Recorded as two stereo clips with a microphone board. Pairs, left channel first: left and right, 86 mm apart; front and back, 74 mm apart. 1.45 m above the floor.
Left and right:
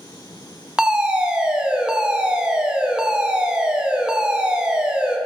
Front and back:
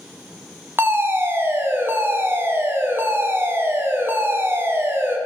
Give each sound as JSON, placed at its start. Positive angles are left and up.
{"t": 0.8, "sound": "a fire alarm", "azimuth_deg": -160, "distance_m": 0.9}